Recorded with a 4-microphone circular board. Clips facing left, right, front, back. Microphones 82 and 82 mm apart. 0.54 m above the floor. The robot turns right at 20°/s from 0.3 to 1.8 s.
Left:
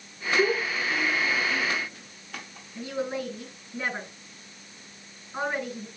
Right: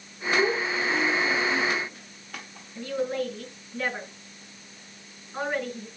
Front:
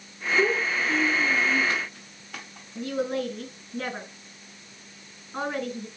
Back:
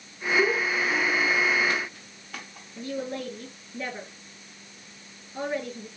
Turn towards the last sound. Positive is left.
turn(degrees=15)